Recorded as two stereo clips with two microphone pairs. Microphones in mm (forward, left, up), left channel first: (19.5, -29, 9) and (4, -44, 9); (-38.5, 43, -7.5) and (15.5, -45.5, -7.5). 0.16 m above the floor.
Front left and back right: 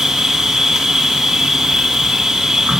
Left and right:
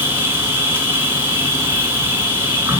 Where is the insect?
105° right, 1.7 m.